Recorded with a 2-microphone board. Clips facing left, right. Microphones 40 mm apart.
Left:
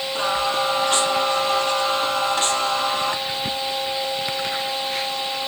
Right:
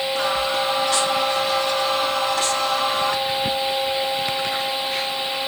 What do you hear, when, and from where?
0.1 s singing: 60° left (ahead or behind), 3 m